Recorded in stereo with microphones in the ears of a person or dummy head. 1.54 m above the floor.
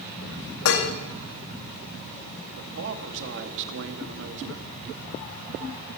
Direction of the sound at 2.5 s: 60° right (ahead or behind).